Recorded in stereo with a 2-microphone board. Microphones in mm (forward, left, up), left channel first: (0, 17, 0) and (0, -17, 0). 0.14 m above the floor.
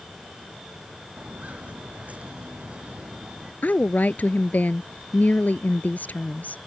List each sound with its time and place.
1.2 s footsteps: 50° right (ahead or behind); by 3.5 s 30° right (ahead or behind)
3.6 s a woman speaking: 55° left (ahead or behind)